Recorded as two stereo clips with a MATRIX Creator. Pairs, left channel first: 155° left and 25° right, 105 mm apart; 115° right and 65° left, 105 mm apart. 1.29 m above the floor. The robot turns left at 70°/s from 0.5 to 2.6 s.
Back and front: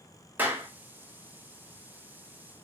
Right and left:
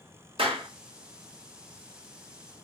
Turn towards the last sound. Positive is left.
turn(degrees=-100)